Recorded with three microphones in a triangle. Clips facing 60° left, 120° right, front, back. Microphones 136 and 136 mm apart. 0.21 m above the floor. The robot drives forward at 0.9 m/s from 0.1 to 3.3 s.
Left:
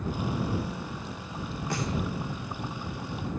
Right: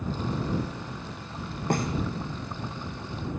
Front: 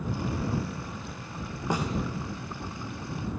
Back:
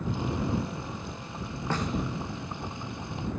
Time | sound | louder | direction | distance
1.7 | a snare drum | right 6 dB, front 2 dB | 80° right | 3 m